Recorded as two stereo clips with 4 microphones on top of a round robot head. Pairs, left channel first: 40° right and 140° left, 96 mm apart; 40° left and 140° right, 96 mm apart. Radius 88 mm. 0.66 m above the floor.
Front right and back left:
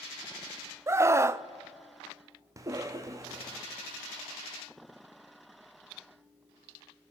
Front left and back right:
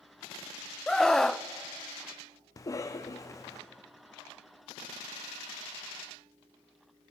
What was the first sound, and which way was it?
A scream, 125° left.